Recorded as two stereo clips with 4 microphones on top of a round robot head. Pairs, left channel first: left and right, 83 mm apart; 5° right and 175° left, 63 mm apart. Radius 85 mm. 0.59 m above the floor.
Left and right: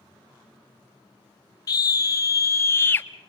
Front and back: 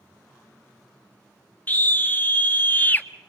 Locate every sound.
1.7 s a scream: 55° left, 2 m; by 3.1 s 40° left, 1.4 m